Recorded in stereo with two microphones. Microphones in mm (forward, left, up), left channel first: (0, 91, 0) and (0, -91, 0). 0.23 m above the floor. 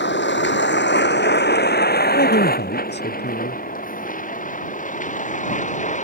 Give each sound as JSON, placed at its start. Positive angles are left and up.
{"t": 0.0, "sound": "a vehicle", "side_deg": 80}
{"t": 2.1, "sound": "a man speaking", "side_deg": 70}